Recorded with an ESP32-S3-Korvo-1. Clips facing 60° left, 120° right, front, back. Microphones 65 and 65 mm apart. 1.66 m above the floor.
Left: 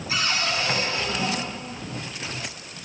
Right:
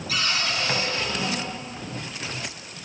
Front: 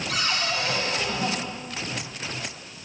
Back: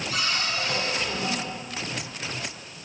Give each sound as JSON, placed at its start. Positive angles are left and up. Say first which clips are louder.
{"t": 0.1, "sound": "a cupboard door", "louder": "left 1 dB, front 2 dB", "azimuth_deg": -5, "distance_m": 8.0}